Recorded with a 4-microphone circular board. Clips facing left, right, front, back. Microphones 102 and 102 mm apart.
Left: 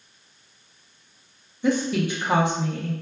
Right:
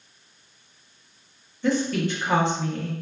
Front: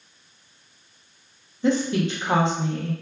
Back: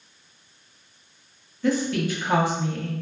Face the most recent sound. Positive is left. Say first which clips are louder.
# left 1 dB, front 2 dB
turn(degrees=30)